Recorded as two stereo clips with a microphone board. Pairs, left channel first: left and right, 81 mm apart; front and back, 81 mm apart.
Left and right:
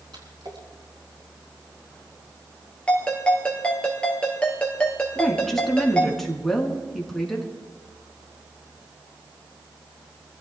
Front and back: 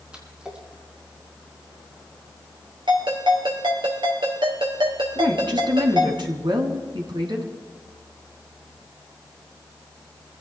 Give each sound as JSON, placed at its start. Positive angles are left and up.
{"t": 0.1, "sound": "a splash", "azimuth_deg": -105, "distance_m": 4.0}
{"t": 2.9, "sound": "a ringtone", "azimuth_deg": 165, "distance_m": 3.0}
{"t": 5.2, "sound": "a woman speaking", "azimuth_deg": 175, "distance_m": 4.0}